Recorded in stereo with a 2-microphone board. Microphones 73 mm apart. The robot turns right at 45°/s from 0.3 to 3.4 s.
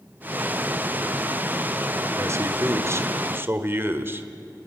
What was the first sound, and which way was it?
A man speaking, 110° right.